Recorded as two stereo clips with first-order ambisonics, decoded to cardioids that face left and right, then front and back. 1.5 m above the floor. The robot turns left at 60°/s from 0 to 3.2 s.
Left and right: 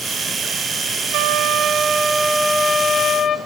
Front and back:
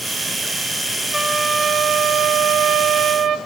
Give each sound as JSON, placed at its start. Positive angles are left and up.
{"t": 1.1, "sound": "a trumpet", "azimuth_deg": -85, "distance_m": 0.5}